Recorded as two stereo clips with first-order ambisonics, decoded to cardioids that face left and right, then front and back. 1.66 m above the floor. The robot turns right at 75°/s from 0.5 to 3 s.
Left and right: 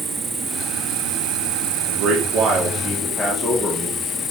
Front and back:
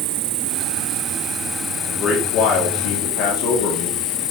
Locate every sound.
0.0 s an insect: 170° right, 0.8 m; by 4.3 s 20° left, 0.8 m
1.9 s a man speaking: 85° right, 3 m; by 4.0 s 5° right, 3 m